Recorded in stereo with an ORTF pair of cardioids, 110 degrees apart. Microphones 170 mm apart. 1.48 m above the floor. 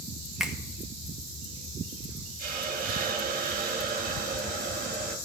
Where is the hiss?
55° right, 1.9 m.